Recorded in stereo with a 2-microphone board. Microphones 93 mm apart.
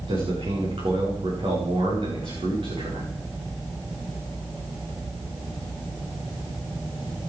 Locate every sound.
0.1 s a man speaking: 70° right (ahead or behind), 7 m